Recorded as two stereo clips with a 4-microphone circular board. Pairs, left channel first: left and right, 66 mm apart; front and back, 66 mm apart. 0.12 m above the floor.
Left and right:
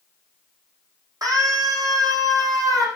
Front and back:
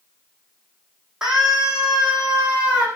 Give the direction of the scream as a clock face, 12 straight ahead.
3 o'clock.